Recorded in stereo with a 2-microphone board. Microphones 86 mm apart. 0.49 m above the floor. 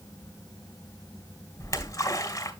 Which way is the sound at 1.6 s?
40° left (ahead or behind).